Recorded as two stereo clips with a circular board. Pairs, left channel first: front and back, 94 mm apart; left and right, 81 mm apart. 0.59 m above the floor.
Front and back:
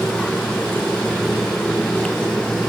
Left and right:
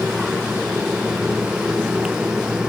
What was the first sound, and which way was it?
Only background noise.